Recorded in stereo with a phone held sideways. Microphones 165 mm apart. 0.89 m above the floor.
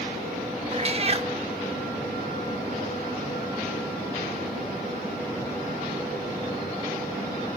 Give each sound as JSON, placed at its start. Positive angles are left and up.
{"t": 0.7, "sound": "a cat meowing", "side_deg": -40, "distance_m": 0.6}